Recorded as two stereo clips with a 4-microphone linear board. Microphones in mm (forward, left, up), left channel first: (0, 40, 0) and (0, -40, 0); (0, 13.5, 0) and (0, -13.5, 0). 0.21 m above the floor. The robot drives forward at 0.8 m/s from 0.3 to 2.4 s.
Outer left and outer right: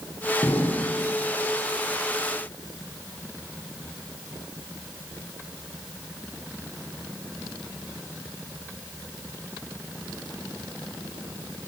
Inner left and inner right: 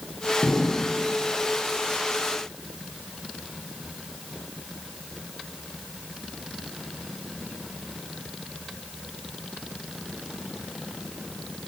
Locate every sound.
0.4 s an explosion: 50° left (ahead or behind), 4.5 m; by 1.0 s 45° left (ahead or behind), 5 m